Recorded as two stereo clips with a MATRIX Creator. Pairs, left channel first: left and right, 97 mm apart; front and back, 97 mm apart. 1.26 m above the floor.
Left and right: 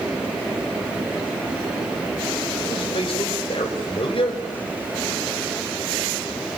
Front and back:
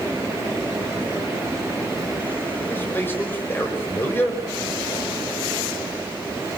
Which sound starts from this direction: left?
A man speaking, at 2.7 s.